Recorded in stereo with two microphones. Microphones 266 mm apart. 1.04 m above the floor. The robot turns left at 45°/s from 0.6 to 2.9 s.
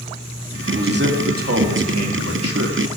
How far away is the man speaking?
About 2.5 m.